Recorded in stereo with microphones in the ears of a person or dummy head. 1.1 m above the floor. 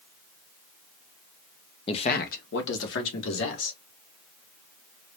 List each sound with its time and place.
1.9 s a man speaking: 25° left (ahead or behind), 0.7 m; by 3.8 s 70° left (ahead or behind), 2.5 m